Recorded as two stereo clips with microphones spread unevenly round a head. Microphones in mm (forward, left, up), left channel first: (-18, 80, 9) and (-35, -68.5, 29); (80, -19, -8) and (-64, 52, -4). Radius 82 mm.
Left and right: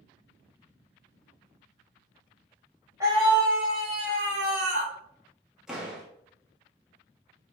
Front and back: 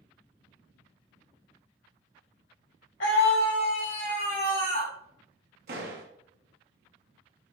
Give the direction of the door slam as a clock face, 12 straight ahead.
6 o'clock.